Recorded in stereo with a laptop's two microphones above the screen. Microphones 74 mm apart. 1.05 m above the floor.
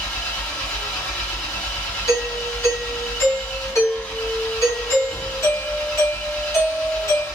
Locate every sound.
0.0 s an engine running: 15° left (ahead or behind), 1.0 m
2.1 s a doorbell: 40° left (ahead or behind), 1.4 m